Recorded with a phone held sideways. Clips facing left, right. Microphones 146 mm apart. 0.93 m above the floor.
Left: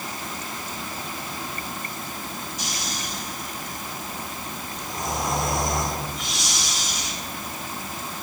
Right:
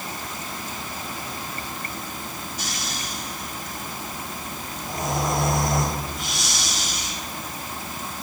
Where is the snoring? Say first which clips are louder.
Even; 75° right (ahead or behind), 5.5 m.